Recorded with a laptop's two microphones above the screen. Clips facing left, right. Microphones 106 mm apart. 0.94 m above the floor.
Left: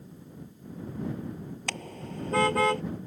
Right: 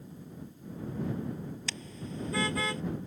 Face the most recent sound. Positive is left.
turn(degrees=55)  # may be behind; listen again after turning